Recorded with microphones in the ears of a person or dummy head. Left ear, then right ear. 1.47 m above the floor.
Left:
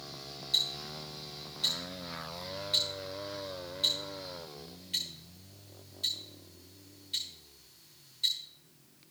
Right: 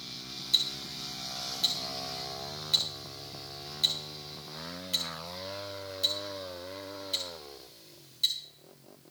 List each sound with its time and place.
0.5 s ticking: 10° right (ahead or behind), 1.2 m